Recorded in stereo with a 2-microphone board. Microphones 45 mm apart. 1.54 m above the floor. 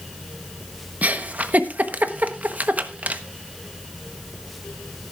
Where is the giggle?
35° right (ahead or behind), 0.9 m.